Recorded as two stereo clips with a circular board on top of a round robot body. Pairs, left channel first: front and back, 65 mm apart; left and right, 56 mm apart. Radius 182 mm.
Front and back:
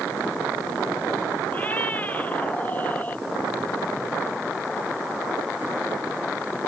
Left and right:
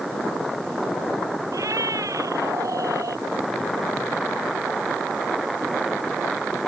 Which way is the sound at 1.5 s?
65° right.